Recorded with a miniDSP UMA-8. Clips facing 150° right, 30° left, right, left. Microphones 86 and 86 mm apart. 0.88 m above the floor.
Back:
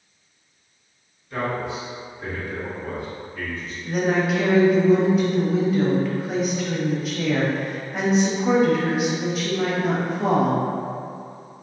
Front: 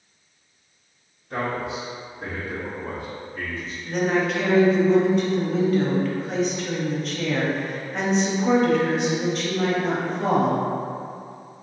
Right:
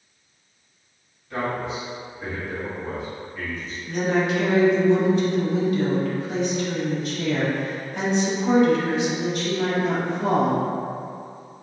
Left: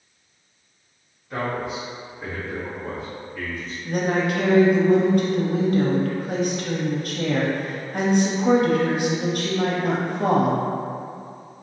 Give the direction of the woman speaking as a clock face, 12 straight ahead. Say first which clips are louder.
Back 1 dB, even; 8 o'clock.